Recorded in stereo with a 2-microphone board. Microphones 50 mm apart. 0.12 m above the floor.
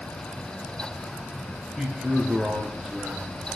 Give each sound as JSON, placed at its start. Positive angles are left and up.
{"t": 1.8, "sound": "a man speaking", "side_deg": -20, "distance_m": 2.0}